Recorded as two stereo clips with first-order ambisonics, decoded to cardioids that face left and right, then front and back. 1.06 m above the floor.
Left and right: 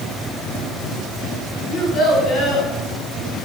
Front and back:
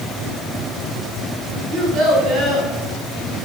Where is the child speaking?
130° left, 6 m.